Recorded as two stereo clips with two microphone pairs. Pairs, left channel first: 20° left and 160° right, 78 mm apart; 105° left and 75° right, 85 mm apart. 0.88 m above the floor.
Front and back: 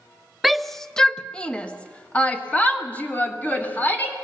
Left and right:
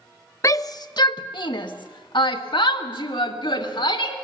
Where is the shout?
115° left, 0.6 m; by 4.2 s 90° left, 2.5 m.